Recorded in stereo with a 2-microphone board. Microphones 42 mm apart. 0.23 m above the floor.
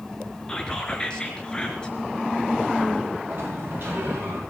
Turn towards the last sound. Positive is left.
turn(degrees=-50)  # may be behind; listen again after turning